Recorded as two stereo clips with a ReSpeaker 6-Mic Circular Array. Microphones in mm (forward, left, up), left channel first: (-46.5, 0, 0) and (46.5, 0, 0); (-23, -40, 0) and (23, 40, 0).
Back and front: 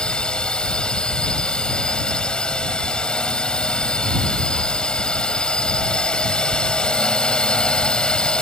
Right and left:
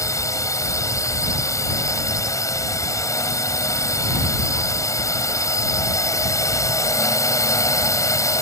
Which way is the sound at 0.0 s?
105° right.